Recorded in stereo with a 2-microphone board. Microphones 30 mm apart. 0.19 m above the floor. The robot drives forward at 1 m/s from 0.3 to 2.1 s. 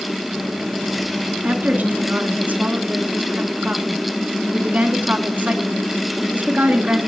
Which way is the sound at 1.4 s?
60° right (ahead or behind).